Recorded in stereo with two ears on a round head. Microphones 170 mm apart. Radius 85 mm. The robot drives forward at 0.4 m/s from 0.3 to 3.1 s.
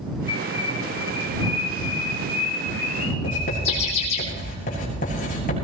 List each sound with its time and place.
0.3 s a bird: 30° left (ahead or behind), 6.5 m; by 4.2 s 35° left (ahead or behind), 5.5 m
3.2 s writing: 45° left (ahead or behind), 7.5 m